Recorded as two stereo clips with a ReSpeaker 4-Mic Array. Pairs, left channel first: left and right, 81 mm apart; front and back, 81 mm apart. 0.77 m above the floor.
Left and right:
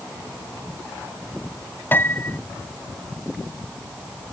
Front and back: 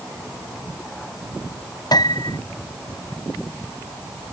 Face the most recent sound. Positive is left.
turn(degrees=25)